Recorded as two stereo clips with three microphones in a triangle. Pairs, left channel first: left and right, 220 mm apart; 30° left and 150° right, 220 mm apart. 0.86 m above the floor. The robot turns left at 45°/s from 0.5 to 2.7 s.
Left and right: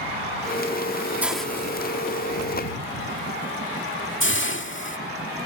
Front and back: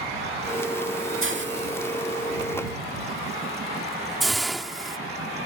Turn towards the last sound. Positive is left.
turn(degrees=120)